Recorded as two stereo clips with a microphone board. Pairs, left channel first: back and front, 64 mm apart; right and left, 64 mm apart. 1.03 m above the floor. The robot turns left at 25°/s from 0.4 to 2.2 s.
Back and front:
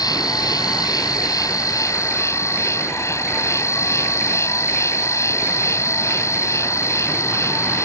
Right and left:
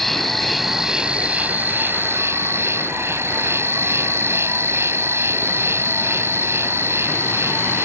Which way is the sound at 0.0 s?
175° right.